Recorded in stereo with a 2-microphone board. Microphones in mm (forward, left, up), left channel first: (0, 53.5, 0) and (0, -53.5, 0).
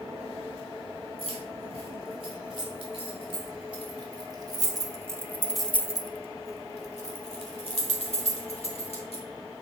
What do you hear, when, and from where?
1.2 s keys jangling: 55° right (ahead or behind), 4.5 m; by 9.2 s 75° left (ahead or behind), 3 m